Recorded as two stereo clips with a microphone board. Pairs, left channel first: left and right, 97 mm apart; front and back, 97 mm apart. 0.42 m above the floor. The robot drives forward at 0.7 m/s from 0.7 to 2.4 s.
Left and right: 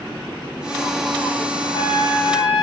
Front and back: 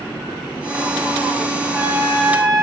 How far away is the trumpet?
About 1.3 m.